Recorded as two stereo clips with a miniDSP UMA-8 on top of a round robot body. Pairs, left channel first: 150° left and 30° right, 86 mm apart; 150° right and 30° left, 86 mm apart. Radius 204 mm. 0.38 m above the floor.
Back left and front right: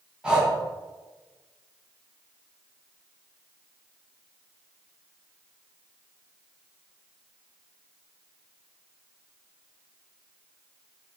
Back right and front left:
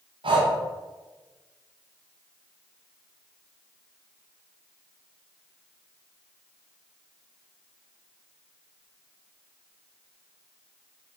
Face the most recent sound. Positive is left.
turn(degrees=50)